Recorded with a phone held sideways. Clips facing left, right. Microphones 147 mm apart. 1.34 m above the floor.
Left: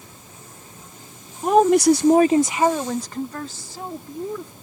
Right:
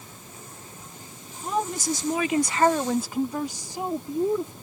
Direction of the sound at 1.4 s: 70° left (ahead or behind).